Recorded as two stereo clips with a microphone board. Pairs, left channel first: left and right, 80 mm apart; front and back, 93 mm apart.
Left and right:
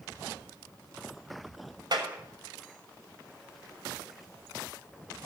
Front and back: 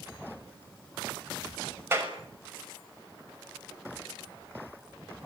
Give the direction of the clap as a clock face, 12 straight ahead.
4 o'clock.